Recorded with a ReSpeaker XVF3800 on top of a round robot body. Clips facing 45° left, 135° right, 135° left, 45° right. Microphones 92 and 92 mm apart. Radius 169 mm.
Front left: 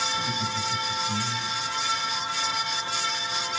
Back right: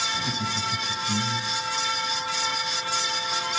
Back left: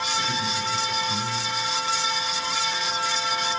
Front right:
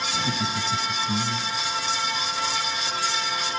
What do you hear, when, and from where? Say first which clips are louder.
0.1 s laughter: even, front right 1 dB; 65° right, 4 m; by 1.5 s 80° right, 3.5 m